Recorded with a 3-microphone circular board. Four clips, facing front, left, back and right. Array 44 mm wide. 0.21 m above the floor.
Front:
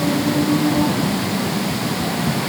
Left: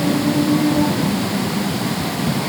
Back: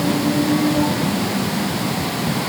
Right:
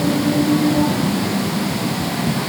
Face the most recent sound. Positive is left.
No sound to turn to.